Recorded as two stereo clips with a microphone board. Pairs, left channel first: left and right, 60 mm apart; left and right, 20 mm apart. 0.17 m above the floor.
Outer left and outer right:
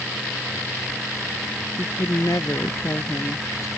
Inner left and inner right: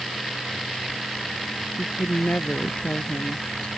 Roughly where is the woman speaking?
Left.